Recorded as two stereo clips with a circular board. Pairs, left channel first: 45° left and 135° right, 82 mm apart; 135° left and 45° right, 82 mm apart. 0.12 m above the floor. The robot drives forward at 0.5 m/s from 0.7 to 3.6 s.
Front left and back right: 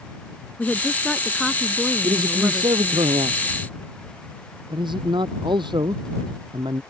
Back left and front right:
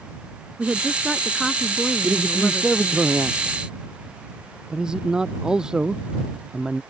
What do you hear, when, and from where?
0.6 s a woman speaking: 5° left; by 3.0 s 175° left
2.0 s a man speaking: 115° right; by 6.8 s 125° right